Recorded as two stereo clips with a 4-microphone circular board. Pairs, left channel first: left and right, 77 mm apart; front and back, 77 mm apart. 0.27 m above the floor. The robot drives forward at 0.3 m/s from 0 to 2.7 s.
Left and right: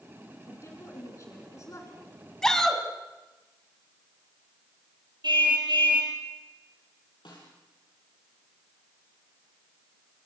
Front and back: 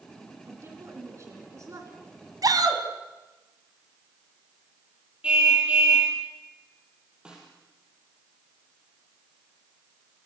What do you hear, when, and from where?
0.5 s a woman speaking: 130° left, 3 m; by 2.2 s 140° left, 3 m
2.4 s a shout: 170° left, 2.5 m
5.2 s a car horn: 105° right, 5 m
7.2 s a snare drum: 100° left, 7.5 m